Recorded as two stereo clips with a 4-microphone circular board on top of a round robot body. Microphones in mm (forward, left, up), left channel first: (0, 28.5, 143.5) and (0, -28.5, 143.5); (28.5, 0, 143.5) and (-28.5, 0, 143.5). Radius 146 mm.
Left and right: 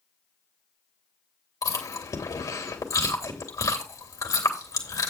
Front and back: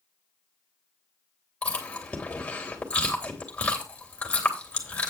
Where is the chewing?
70° left, 3 m.